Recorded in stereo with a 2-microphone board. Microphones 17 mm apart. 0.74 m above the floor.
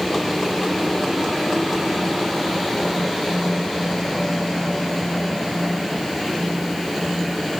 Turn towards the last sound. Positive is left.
No sound to turn to.